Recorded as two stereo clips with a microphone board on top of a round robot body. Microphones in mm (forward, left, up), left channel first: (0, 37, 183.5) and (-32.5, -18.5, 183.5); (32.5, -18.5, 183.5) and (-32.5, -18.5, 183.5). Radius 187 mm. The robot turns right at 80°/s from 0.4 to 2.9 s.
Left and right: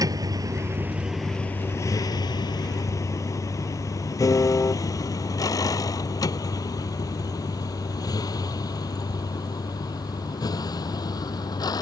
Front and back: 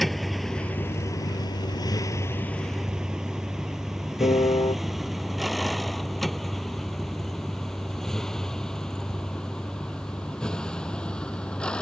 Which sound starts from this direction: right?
A vehicle, at 0.0 s.